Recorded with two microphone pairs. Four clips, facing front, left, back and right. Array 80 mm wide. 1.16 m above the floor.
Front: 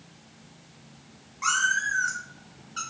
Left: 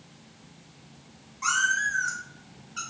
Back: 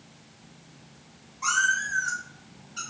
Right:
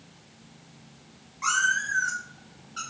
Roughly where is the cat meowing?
Ahead right.